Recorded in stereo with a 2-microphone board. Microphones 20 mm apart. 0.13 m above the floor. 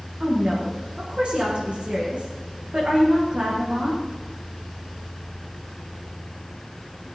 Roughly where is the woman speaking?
Right.